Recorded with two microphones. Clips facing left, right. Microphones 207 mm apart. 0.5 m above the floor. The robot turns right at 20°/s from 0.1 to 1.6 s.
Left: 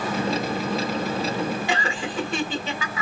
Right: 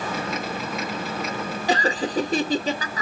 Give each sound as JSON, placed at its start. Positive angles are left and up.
{"t": 1.7, "sound": "laughter", "side_deg": -40, "distance_m": 1.1}